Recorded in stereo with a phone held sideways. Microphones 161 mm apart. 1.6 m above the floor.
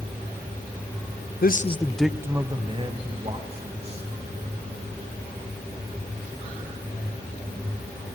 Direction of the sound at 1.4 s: 65° left (ahead or behind).